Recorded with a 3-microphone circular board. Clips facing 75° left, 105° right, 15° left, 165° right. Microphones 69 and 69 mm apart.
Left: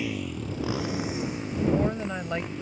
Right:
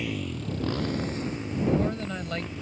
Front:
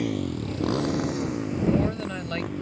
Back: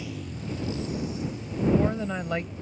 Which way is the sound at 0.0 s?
10° right.